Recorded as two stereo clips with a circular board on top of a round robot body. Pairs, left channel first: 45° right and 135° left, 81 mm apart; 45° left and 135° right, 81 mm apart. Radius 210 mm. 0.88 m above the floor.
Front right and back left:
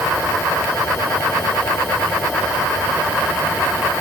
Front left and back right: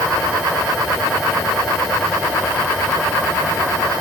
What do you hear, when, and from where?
Only background noise.